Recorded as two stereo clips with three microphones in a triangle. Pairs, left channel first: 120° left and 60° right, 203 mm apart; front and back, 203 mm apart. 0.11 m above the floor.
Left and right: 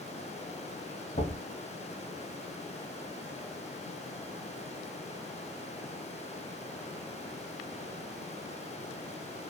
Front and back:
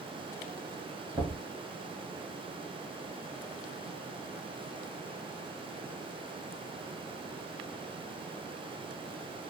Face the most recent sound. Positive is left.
turn(degrees=115)